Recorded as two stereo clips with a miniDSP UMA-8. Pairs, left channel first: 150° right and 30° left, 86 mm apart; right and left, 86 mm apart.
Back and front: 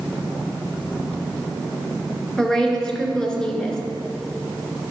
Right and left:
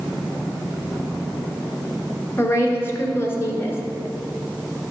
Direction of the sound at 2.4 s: 75° right.